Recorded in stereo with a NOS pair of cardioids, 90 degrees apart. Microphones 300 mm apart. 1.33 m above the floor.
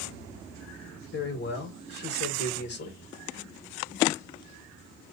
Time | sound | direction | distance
1.1 | a man speaking | 45° left | 1.9 m